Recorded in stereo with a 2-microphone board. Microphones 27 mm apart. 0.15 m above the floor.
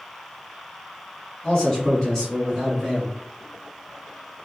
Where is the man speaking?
35° left (ahead or behind), 2.0 m; by 3.2 s 5° left (ahead or behind), 2 m.